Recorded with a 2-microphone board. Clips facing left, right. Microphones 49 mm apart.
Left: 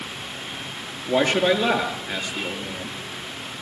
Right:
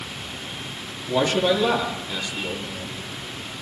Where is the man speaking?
50° left (ahead or behind), 6 m.